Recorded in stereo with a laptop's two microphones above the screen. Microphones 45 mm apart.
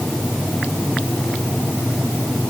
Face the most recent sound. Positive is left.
No sound to turn to.